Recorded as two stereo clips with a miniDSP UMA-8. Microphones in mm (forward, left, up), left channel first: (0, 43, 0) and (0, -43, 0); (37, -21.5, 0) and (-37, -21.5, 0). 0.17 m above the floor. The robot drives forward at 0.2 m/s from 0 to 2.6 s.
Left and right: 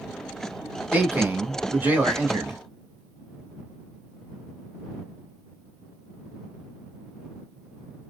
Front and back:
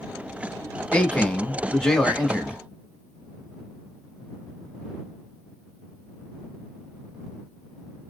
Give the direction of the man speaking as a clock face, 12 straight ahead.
2 o'clock.